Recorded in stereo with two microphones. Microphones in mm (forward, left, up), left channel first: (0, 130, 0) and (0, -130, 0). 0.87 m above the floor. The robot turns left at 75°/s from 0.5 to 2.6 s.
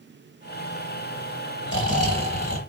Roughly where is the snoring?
Behind left.